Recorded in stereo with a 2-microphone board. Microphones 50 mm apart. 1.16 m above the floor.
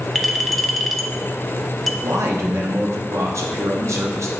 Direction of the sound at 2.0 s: 70° right (ahead or behind).